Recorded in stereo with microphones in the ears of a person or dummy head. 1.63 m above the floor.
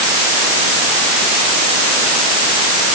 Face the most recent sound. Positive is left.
No sound to turn to.